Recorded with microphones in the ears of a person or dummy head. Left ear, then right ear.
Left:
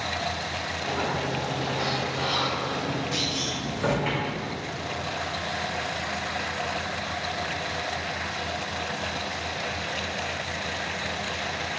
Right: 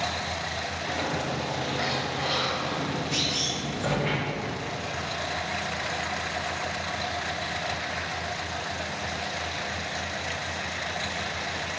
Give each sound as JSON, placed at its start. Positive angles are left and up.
{"t": 0.8, "sound": "a sliding door", "side_deg": 20, "distance_m": 1.2}
{"t": 3.1, "sound": "a clunk", "side_deg": -25, "distance_m": 1.9}